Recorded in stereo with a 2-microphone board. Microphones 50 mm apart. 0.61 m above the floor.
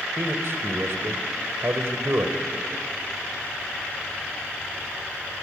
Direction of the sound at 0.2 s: 60° right (ahead or behind).